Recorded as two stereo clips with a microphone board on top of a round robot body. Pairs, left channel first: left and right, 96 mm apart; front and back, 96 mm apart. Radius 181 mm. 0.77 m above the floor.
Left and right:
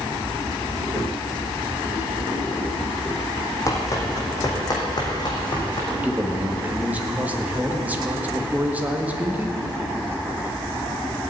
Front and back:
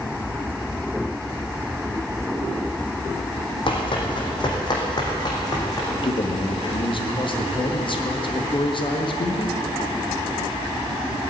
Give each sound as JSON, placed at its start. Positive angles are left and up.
{"t": 3.7, "sound": "running footsteps", "azimuth_deg": 35, "distance_m": 3.0}
{"t": 5.9, "sound": "a man speaking", "azimuth_deg": -15, "distance_m": 1.9}